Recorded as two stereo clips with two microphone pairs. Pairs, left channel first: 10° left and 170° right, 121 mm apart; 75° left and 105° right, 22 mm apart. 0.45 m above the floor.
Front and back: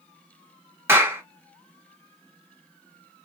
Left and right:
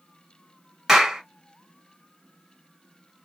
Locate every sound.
0.9 s a clap: 130° right, 1.1 m